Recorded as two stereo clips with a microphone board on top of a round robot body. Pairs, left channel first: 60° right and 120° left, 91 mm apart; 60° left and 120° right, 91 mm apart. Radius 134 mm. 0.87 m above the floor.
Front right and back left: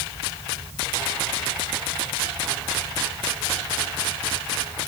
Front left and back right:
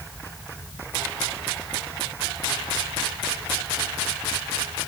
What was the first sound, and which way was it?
Only background noise.